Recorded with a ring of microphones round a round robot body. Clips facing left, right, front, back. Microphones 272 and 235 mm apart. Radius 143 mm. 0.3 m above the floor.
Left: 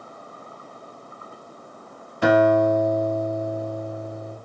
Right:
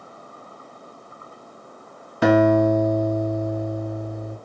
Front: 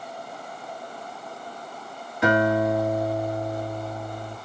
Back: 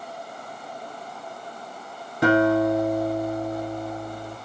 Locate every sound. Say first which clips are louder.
2.2 s a guitar: right 2 dB, back 3 dB; 120° right, 1.0 m